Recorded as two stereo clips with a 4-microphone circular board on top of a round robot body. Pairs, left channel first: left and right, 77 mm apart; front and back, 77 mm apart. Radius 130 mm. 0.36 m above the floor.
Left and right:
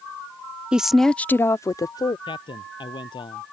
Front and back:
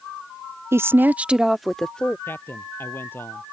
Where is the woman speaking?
160° right; by 2.2 s 75° left.